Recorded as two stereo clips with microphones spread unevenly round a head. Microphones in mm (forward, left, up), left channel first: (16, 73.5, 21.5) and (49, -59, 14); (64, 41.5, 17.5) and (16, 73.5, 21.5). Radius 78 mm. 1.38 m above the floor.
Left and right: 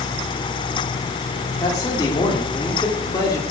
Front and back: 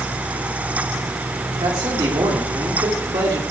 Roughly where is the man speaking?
Behind.